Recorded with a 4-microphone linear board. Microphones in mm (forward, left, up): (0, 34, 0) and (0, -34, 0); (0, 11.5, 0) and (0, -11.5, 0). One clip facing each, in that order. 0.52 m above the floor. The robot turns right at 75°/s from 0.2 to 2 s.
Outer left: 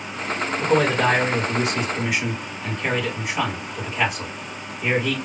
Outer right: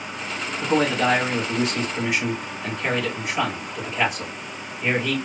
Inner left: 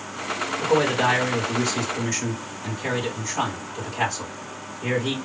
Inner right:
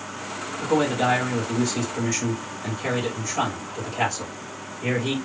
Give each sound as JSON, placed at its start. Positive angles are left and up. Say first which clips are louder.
{"t": 0.6, "sound": "a man speaking", "louder": "outer left 1 dB, inner left 1 dB", "azimuth_deg": 75, "distance_m": 2.5}